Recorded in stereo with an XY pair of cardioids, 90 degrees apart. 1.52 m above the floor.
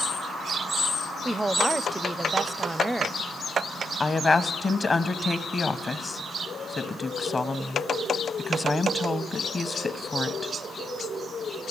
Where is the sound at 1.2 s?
20° right, 0.5 m.